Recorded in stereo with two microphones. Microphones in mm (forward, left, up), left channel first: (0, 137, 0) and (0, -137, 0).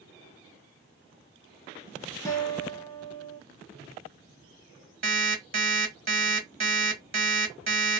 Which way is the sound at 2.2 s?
10° left (ahead or behind).